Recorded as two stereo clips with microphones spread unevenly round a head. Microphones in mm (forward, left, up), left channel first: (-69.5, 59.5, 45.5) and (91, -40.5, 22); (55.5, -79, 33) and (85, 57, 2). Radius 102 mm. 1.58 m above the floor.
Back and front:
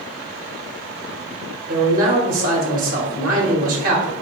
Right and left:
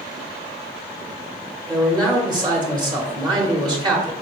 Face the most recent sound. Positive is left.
turn(degrees=15)